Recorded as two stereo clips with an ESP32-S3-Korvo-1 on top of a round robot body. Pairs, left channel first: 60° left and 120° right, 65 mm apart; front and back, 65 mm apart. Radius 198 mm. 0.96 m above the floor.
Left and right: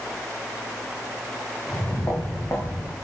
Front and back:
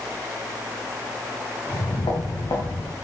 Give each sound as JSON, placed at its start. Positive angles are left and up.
{"t": 1.7, "sound": "footsteps", "azimuth_deg": -5, "distance_m": 5.5}